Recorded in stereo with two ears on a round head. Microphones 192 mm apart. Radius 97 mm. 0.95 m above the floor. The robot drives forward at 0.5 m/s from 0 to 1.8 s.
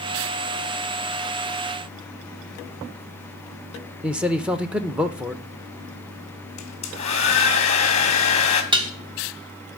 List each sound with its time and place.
4.0 s a man speaking: 5° right (ahead or behind), 0.7 m
6.6 s a hair dryer: 35° left (ahead or behind), 1.6 m
8.7 s dishes clattering: 25° right (ahead or behind), 1.3 m